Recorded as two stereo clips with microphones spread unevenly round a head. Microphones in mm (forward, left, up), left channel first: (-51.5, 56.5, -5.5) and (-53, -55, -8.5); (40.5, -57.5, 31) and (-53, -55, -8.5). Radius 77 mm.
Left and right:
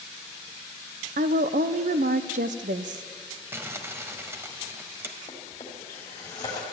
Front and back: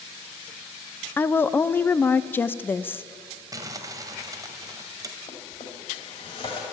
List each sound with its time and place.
1.2 s a woman speaking: 80° right, 0.6 m
3.5 s crumpling: 120° right, 1.2 m
5.3 s a drawer: 25° left, 2.5 m